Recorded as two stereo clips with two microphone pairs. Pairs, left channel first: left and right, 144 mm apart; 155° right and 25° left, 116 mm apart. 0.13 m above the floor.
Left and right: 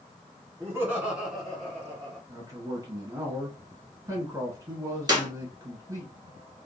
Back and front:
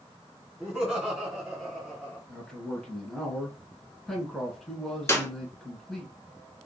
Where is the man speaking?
80° right, 1.3 m.